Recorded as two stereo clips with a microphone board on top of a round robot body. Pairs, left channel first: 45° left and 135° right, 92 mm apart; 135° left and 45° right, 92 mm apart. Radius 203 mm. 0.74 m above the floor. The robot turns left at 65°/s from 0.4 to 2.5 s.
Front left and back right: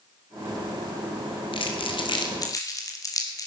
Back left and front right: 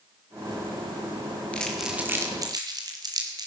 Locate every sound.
1.5 s crumpling: 60° left, 2 m; by 3.5 s 5° right, 2 m